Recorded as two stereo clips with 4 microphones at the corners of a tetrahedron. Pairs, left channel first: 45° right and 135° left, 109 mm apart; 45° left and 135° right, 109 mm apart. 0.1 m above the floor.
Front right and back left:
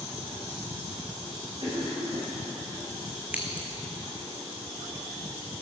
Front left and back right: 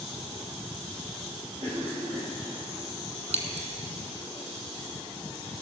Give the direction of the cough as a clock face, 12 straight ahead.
6 o'clock.